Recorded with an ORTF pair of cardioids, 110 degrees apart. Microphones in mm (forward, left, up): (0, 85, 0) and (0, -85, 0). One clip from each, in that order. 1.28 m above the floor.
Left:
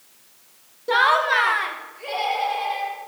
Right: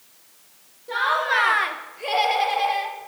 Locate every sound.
0.9 s laughter: 55° left, 0.6 m; by 3.1 s 45° right, 2.5 m